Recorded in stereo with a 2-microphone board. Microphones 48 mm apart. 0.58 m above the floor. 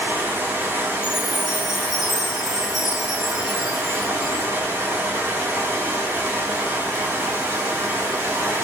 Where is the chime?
10° right (ahead or behind), 1.3 m.